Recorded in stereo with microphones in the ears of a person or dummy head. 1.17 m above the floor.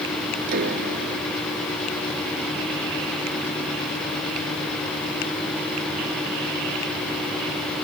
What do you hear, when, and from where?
0.5 s a piano: 60° right (ahead or behind)